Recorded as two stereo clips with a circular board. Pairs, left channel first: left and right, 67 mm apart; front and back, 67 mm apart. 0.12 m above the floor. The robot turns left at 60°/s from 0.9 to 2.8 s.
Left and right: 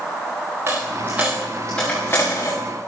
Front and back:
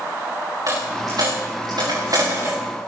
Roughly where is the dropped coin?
Behind right.